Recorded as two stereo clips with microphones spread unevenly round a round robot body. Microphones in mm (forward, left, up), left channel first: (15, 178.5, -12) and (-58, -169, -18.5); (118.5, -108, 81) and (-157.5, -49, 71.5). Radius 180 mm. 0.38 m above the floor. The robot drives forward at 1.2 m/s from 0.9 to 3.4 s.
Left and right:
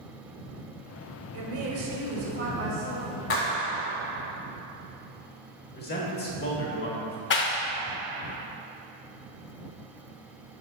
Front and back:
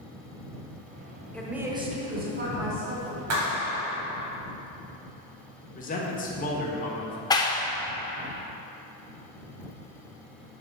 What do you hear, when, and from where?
1.3 s a woman speaking: 95° right, 1.4 m; by 3.2 s 160° right, 2.5 m
3.3 s a clap: 135° left, 2 m
5.8 s a man speaking: 30° left, 1.3 m
7.3 s a clap: 55° left, 0.6 m